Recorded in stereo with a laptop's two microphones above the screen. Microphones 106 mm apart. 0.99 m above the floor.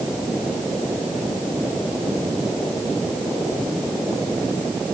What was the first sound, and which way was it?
Only background noise.